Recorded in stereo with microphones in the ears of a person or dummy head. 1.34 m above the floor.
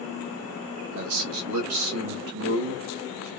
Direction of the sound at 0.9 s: 75° right (ahead or behind).